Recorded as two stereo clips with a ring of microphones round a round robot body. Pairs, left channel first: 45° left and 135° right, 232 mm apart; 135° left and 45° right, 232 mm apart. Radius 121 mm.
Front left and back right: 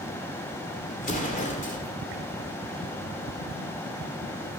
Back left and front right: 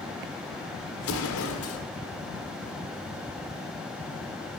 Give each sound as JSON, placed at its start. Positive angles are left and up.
{"t": 1.0, "sound": "an explosion", "azimuth_deg": 105, "distance_m": 1.2}